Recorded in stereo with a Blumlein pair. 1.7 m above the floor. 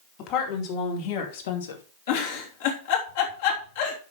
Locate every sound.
0.2 s a woman speaking: 40° left, 4 m; by 1.8 s 70° left, 2 m
2.1 s a giggle: 55° left, 3.5 m